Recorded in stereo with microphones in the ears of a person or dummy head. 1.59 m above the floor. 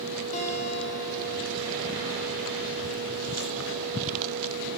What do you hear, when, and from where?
0.3 s a guitar: 40° left (ahead or behind), 2.5 m